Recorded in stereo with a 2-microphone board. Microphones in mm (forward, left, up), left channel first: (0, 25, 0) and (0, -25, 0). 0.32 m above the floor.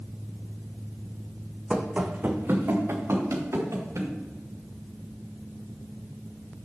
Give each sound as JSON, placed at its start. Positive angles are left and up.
{"t": 1.7, "sound": "running footsteps", "side_deg": -5, "distance_m": 0.9}